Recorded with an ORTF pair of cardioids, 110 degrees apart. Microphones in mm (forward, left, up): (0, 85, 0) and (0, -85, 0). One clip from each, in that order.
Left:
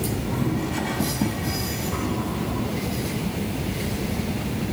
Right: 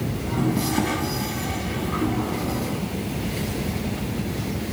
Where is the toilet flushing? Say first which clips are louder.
Right 2 dB; 30° right, 6.5 m.